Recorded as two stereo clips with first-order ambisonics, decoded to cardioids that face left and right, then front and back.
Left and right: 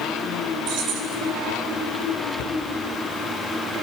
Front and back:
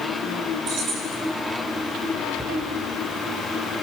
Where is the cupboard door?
100° left, 1.9 m.